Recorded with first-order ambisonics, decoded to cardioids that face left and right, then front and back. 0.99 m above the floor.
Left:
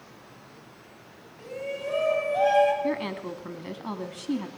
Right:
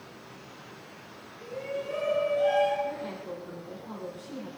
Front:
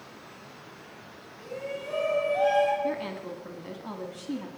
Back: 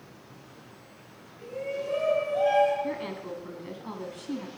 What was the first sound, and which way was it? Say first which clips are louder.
A shout: left 2 dB, back 3 dB; 55° left.